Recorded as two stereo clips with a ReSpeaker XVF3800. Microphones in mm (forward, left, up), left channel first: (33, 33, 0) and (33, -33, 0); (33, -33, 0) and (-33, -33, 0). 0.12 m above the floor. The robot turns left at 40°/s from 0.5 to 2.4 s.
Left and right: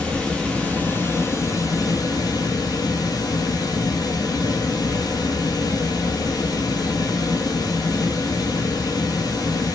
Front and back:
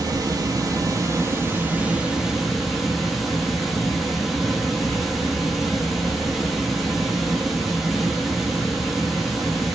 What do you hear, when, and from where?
0.0 s running water: 165° left, 0.7 m; by 9.8 s 90° left, 0.7 m